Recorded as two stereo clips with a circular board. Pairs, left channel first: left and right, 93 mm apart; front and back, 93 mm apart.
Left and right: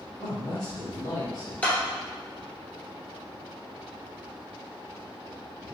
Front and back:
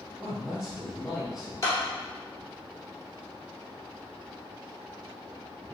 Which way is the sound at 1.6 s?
30° left.